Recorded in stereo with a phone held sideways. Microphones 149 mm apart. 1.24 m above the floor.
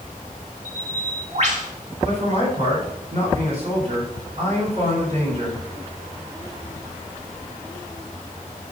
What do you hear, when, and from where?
0.7 s a bird: 50° right (ahead or behind), 1.3 m
2.0 s a man speaking: 45° right (ahead or behind), 4 m